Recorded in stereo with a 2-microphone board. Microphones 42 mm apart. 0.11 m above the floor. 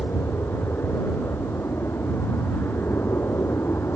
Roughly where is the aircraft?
Left.